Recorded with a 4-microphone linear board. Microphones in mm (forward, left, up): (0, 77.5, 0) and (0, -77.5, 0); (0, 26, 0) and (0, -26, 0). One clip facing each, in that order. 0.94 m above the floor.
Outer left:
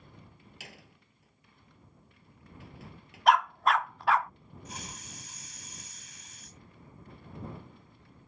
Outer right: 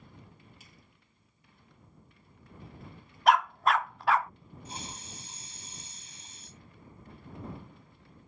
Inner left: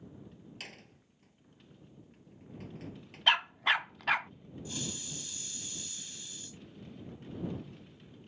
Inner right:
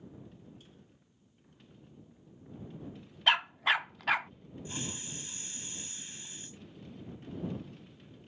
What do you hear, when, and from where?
0.6 s a door slam: 80° left
3.3 s a dog barking: centre (ahead or behind)
4.7 s a hiss: 30° right (ahead or behind)